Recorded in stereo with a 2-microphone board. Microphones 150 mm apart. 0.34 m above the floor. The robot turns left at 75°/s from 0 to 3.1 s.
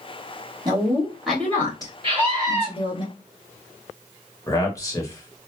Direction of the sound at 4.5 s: 20° left (ahead or behind).